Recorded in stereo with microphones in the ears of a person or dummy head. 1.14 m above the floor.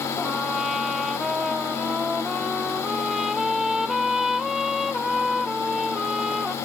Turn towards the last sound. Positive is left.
turn(degrees=0)  # may be behind; listen again after turning